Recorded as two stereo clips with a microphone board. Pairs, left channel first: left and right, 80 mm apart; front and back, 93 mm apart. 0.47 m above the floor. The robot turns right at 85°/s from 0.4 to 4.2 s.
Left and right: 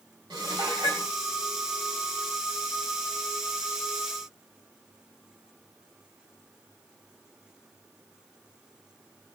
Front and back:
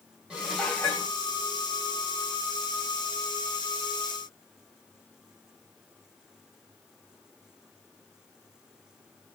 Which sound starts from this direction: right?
Dishes clattering, at 0.3 s.